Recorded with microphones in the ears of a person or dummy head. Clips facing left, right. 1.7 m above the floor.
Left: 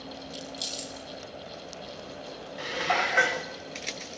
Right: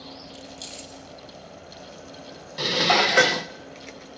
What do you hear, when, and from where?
0.3 s keys jangling: 15° left (ahead or behind), 1.8 m
2.6 s dishes clattering: 55° right (ahead or behind), 1.1 m